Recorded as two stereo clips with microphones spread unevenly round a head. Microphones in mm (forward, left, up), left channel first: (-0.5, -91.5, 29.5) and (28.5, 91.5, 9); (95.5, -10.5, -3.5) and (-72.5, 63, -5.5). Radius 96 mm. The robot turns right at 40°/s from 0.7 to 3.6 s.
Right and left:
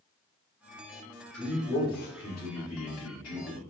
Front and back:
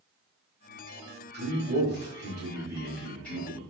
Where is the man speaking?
175° left, 3 m; by 3.6 s 95° right, 3 m.